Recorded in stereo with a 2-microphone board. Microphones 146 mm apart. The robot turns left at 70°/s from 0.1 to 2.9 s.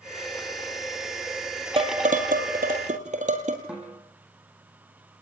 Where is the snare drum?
5° right (ahead or behind), 7 m.